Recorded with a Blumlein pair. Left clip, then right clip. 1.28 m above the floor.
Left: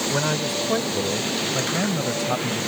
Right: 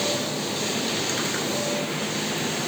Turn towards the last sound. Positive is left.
turn(degrees=35)